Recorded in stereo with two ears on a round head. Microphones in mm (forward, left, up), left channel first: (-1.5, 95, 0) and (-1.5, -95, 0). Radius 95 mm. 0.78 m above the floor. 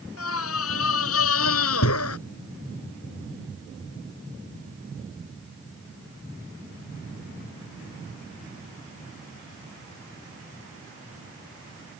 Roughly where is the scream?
Left.